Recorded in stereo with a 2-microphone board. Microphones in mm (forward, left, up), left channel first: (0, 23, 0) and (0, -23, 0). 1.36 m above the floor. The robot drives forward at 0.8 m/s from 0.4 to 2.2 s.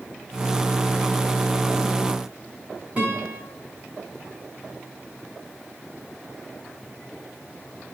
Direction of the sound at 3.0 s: 30° right (ahead or behind).